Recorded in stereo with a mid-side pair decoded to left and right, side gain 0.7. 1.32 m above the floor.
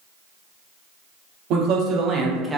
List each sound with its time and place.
1.5 s a man speaking: 60° right, 1.0 m; by 2.6 s 10° right, 0.7 m